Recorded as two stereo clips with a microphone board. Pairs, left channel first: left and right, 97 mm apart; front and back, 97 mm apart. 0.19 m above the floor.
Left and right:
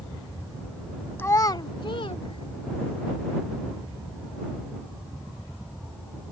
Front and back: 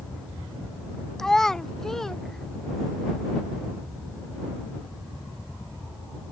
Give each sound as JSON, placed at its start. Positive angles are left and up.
{"t": 1.2, "sound": "a child speaking", "azimuth_deg": 75}